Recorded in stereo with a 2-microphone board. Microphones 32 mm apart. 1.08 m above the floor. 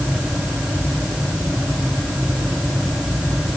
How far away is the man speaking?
No man speaking in this recording.